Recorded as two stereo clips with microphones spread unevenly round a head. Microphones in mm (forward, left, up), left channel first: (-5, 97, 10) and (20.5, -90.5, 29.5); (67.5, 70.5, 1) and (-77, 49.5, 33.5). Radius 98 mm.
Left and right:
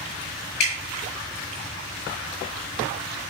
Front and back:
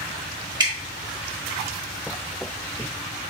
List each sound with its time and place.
0.6 s dripping: 135° left, 4 m